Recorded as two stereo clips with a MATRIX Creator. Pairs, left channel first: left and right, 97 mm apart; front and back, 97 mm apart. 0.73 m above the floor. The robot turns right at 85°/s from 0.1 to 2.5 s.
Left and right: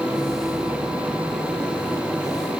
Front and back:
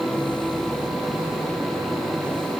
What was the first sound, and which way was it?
Only background noise.